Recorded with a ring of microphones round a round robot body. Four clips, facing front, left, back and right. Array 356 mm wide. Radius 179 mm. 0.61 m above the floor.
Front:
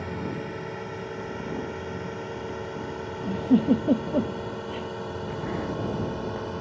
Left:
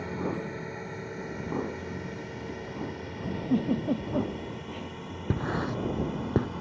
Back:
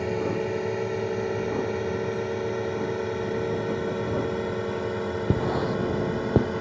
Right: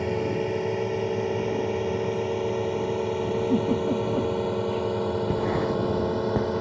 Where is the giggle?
5° right.